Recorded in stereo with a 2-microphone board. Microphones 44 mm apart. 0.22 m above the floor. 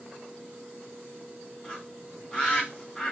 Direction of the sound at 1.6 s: 15° left (ahead or behind).